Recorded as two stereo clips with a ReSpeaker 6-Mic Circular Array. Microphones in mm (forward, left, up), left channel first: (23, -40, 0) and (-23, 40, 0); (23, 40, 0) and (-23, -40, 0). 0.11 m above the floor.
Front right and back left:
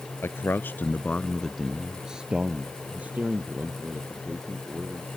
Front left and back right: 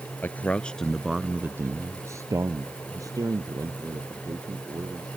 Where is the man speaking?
5° right; by 5.2 s 170° right.